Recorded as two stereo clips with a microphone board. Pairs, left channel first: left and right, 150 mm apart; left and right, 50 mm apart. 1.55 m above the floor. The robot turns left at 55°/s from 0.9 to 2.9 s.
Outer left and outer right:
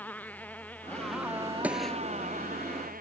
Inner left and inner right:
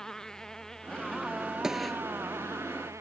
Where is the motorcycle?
10° left (ahead or behind); by 3.0 s 80° right.